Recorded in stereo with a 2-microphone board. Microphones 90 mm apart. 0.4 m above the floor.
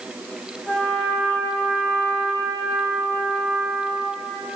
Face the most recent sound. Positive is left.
turn(degrees=0)  # may be behind; listen again after turning